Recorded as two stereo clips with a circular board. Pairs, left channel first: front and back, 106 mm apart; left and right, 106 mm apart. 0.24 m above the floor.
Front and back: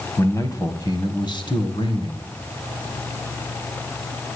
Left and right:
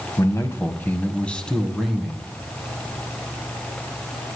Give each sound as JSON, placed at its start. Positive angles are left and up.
{"t": 0.2, "sound": "a man speaking", "azimuth_deg": 50, "distance_m": 1.2}